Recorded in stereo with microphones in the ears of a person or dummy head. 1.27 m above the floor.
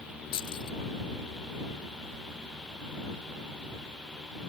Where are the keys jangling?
25° left (ahead or behind).